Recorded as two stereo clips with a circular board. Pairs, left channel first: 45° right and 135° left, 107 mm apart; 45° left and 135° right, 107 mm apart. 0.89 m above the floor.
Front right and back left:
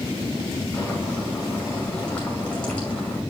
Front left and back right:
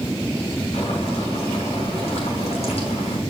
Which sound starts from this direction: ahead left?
Boiling, at 0.7 s.